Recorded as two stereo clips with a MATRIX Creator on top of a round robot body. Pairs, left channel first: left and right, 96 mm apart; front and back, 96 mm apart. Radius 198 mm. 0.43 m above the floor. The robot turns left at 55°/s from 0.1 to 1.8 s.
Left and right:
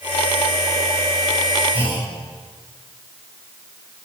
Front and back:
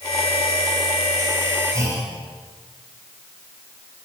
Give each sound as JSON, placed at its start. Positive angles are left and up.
{"t": 1.7, "sound": "a clunk", "azimuth_deg": -120, "distance_m": 7.0}